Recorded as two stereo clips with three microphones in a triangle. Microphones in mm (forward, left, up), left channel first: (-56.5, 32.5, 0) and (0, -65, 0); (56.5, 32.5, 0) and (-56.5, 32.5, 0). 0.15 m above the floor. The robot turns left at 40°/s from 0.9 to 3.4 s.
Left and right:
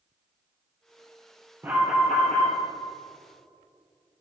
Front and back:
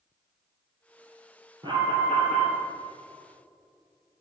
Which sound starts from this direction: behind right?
An alarm, at 1.6 s.